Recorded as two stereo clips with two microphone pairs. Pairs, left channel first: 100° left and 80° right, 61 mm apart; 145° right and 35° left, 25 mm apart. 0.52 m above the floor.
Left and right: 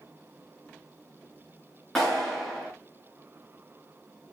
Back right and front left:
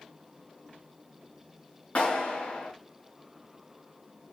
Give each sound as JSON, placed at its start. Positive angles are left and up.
{"t": 1.9, "sound": "a clap", "azimuth_deg": -175, "distance_m": 6.5}